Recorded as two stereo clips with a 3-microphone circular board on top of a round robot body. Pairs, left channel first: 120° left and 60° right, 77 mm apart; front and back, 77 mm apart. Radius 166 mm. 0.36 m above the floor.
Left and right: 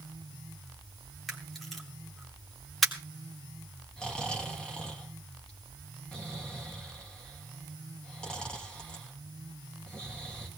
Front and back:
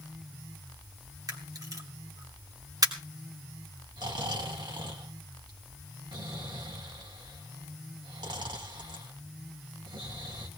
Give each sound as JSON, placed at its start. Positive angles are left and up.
{"t": 1.3, "sound": "a camera shutter", "azimuth_deg": -150, "distance_m": 3.0}
{"t": 4.0, "sound": "snoring", "azimuth_deg": -160, "distance_m": 3.0}